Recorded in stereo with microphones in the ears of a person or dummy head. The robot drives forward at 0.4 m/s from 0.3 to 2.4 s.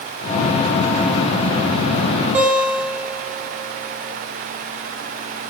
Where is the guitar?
5° right (ahead or behind), 1.7 m.